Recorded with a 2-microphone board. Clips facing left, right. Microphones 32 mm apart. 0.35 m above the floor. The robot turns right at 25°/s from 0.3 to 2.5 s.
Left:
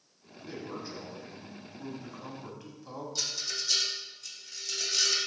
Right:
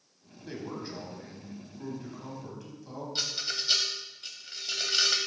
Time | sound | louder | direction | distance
0.5 | a man speaking | right 2 dB | 30° right | 2 m
3.1 | a rattle | right 3 dB | 45° right (ahead or behind) | 1.0 m